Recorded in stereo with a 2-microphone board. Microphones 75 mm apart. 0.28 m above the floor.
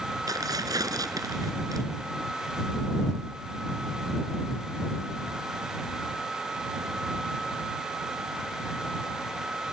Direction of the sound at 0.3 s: 50° right (ahead or behind).